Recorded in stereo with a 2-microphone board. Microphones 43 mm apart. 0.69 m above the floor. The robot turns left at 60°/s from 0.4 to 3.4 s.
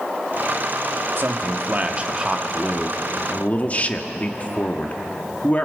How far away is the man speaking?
About 1.5 m.